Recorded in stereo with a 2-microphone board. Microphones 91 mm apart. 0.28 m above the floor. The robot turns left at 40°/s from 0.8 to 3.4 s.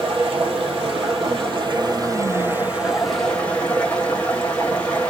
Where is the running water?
90° right, 1.3 m; by 5.1 s 165° left, 1.3 m.